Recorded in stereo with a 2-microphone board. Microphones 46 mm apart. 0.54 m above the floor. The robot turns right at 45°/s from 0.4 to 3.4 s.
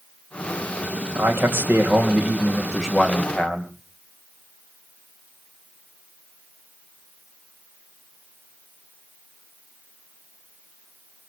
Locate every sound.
1.1 s a man speaking: 80° right, 3 m; by 3.7 s 20° left, 3 m